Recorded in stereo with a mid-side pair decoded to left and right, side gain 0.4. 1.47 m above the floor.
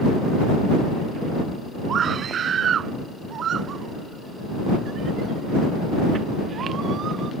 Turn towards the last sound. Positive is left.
turn(degrees=-65)